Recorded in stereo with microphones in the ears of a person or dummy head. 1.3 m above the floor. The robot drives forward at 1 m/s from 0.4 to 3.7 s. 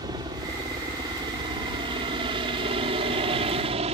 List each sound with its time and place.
0.0 s a helicopter: 25° right (ahead or behind); by 4.0 s 35° right (ahead or behind)